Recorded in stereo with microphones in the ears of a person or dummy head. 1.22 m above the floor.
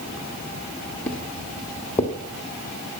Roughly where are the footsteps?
Centre.